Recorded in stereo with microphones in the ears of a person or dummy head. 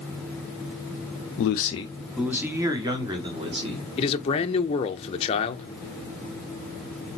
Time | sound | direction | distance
1.4 | a man speaking | 50° left (ahead or behind) | 0.5 m
4.0 | a man speaking | 35° left (ahead or behind) | 0.6 m